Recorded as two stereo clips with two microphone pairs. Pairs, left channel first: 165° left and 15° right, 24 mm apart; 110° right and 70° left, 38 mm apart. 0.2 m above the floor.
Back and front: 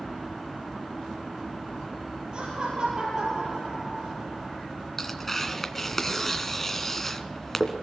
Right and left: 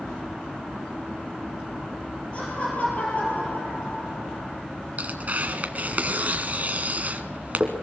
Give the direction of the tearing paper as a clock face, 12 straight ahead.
9 o'clock.